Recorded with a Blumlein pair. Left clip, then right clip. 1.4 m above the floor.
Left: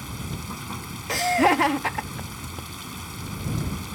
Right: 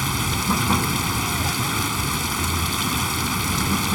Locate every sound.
0.0 s running water: 35° right
1.1 s laughter: 35° left